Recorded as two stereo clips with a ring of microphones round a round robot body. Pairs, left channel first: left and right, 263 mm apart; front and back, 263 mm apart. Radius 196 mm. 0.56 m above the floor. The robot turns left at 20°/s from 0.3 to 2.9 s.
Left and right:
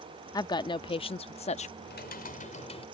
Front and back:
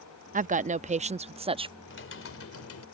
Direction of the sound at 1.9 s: 40° left.